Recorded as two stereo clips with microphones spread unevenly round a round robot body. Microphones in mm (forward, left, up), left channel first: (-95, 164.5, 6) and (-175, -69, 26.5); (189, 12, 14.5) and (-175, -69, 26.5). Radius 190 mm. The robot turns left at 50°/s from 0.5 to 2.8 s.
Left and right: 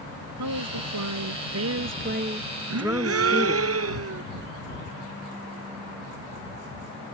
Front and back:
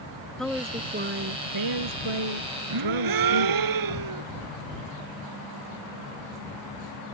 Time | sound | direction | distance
0.4 | a woman speaking | 75° right | ?
2.7 | a gasp | 125° right | ?